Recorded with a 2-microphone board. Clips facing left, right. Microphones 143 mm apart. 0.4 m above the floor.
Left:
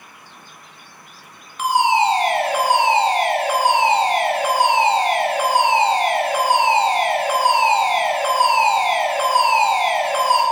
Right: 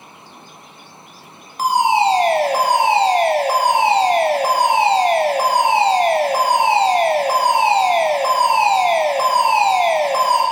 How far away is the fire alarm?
About 3.5 m.